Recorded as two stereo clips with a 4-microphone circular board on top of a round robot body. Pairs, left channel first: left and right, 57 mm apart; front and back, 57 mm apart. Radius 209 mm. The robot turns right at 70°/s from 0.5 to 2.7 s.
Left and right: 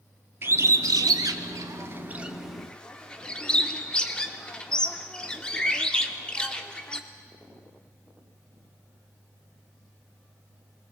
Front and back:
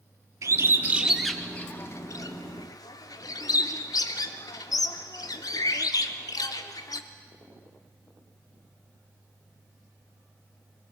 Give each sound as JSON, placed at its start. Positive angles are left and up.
{"t": 0.4, "sound": "a bird", "azimuth_deg": -140, "distance_m": 0.7}